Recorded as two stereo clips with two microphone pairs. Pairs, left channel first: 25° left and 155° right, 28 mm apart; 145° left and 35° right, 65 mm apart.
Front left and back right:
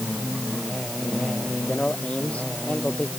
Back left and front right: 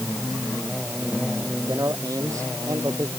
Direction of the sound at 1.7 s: 5° right.